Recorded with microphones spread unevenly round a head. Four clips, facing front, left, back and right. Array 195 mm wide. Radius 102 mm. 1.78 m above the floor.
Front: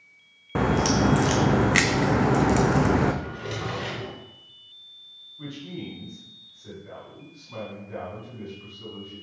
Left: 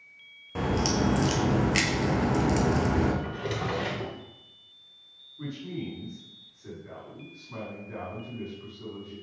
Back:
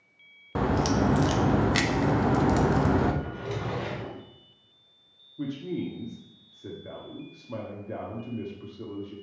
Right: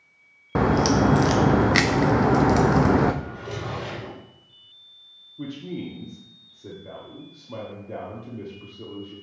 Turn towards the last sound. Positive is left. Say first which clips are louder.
# right 3 dB, back 5 dB
turn(degrees=-145)